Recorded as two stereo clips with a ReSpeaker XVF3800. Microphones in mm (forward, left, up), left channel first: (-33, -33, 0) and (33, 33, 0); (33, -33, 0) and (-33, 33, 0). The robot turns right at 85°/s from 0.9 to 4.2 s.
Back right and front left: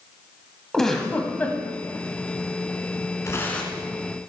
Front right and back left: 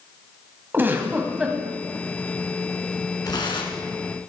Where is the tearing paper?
85° right, 2.0 m; by 3.9 s 30° right, 2.0 m.